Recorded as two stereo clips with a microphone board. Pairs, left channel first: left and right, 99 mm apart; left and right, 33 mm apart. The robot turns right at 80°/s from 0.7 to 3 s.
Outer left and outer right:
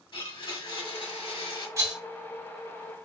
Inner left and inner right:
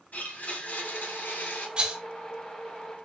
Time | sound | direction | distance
0.1 | a blender | 55° left | 1.5 m
1.8 | a rattle | 30° right (ahead or behind) | 1.3 m